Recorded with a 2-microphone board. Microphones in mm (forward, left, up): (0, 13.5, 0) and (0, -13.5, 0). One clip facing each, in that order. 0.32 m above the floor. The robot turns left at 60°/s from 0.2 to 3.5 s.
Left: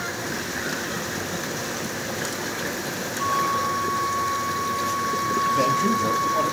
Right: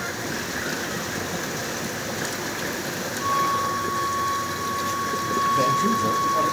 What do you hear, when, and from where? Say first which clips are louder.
3.2 s a flute: even; 25° left (ahead or behind), 3.5 m; by 6.5 s 45° left (ahead or behind), 3.5 m
5.5 s a man speaking: right 1 dB; 5° left (ahead or behind), 1.5 m